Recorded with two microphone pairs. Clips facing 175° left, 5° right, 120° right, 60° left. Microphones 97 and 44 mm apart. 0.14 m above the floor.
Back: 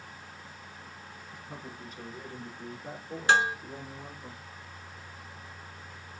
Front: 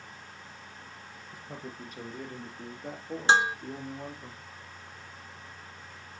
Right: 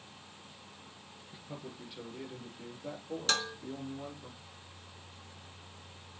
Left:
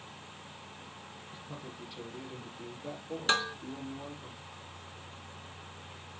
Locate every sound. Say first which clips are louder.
1.3 s a man speaking: front 3 dB, right 1 dB; 40° right, 2.5 m; by 4.3 s 25° right, 5.5 m
3.3 s dishes clattering: front 1 dB, left 4 dB; 25° left, 0.8 m